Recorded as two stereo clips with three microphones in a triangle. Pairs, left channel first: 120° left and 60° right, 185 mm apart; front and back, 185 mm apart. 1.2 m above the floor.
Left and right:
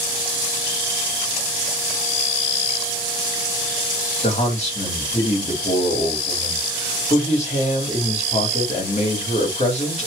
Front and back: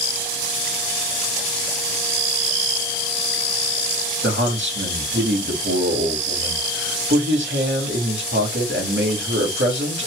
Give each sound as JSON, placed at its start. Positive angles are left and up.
{"t": 4.2, "sound": "a man speaking", "azimuth_deg": 175, "distance_m": 2.0}